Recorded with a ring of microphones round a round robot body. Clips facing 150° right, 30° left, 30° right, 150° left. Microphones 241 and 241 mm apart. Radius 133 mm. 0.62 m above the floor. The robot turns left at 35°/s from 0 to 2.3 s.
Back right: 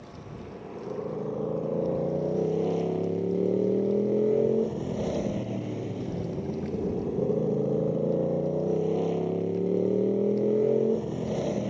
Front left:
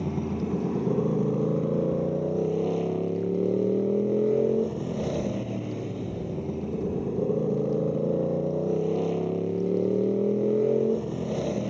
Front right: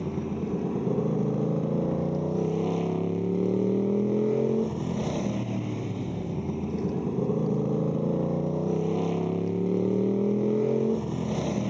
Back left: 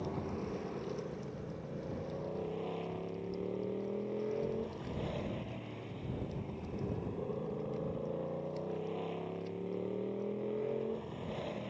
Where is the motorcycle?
25° left; by 11.7 s 55° right.